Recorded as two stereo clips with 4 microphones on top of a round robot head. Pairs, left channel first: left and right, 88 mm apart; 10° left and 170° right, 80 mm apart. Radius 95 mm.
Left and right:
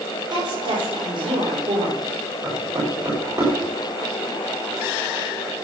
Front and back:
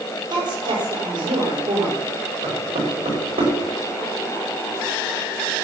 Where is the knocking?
155° right, 6 m.